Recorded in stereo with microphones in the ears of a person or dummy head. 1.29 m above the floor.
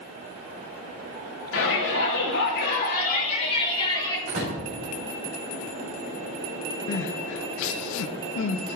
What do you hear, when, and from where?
1.5 s a shout: 70° left (ahead or behind), 3 m; by 4.2 s 15° left (ahead or behind), 2.5 m
4.3 s a door slam: 50° right (ahead or behind), 3 m
6.9 s crying: 65° left (ahead or behind), 0.6 m